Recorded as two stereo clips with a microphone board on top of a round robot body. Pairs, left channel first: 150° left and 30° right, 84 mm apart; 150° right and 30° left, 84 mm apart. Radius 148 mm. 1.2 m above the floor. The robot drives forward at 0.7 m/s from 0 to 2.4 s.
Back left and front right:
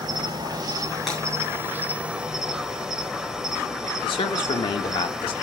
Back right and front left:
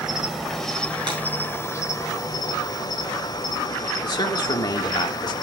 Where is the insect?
50° right, 1.8 m; by 5.4 s 115° right, 1.5 m.